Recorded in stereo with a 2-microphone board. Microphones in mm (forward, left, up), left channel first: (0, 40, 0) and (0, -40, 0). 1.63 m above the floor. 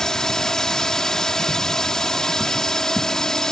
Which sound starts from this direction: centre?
A drone, at 0.0 s.